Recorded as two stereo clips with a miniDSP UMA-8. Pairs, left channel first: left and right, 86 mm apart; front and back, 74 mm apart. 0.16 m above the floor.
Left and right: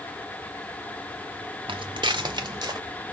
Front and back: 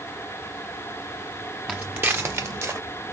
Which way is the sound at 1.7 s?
105° right.